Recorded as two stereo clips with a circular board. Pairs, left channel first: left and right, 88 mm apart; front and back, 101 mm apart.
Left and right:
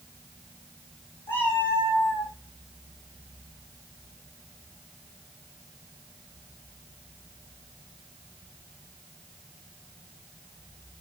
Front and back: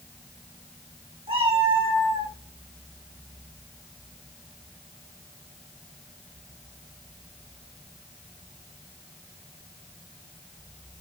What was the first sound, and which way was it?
A cat meowing, 160° left.